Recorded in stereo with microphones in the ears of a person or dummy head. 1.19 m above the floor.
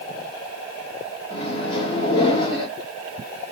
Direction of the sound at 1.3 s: 20° left (ahead or behind).